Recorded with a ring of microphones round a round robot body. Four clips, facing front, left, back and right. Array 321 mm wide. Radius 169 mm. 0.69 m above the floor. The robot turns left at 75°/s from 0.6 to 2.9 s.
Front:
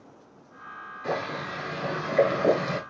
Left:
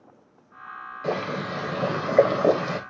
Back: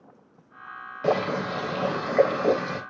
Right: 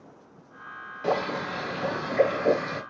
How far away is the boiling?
About 3.5 m.